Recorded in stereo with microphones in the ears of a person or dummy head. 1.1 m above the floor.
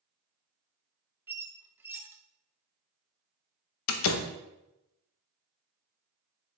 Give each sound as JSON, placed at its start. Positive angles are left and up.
{"t": 1.3, "sound": "a squeak", "side_deg": -10, "distance_m": 0.5}
{"t": 3.9, "sound": "a door slam", "side_deg": 80, "distance_m": 0.6}